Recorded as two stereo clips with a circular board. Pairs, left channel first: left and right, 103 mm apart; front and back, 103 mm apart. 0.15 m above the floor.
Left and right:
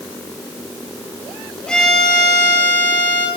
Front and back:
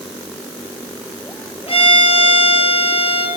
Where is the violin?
10° left, 1.9 m.